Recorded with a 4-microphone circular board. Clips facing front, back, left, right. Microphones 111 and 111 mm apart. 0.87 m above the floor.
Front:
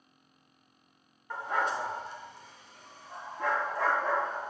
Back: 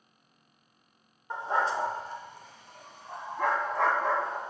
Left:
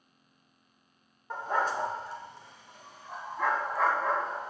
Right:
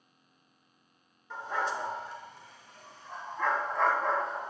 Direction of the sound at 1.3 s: 115° left.